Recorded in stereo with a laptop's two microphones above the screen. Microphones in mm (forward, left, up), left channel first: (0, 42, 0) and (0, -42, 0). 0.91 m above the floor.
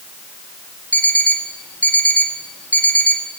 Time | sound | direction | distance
0.9 | an alarm clock | 15° left (ahead or behind) | 0.9 m